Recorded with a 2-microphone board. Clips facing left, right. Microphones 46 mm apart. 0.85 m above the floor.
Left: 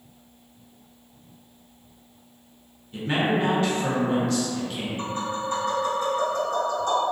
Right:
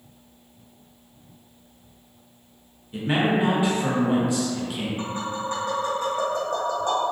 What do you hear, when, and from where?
2.9 s a man speaking: 15° right (ahead or behind), 0.7 m
5.0 s tapping: 40° right (ahead or behind), 1.2 m